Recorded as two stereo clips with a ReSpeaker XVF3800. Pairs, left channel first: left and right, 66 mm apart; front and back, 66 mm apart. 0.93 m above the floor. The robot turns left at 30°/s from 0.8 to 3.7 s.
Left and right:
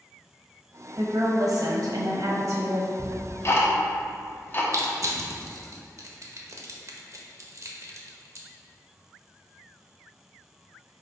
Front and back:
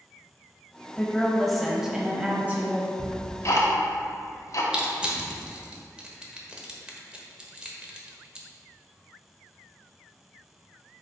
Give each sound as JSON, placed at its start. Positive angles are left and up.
{"t": 1.0, "sound": "a woman speaking", "azimuth_deg": -80, "distance_m": 1.3}
{"t": 3.0, "sound": "ticking", "azimuth_deg": 55, "distance_m": 1.3}
{"t": 4.7, "sound": "crushing", "azimuth_deg": -105, "distance_m": 1.2}